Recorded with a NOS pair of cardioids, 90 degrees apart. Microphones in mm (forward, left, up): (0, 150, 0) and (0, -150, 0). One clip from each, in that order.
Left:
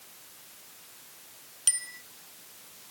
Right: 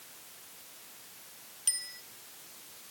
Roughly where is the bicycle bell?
Ahead left.